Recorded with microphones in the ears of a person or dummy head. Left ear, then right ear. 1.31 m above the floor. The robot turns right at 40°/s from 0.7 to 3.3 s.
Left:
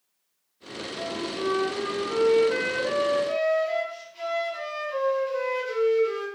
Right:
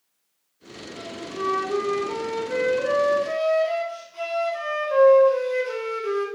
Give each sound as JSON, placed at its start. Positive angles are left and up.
{"t": 0.9, "sound": "a flute", "azimuth_deg": 165, "distance_m": 2.5}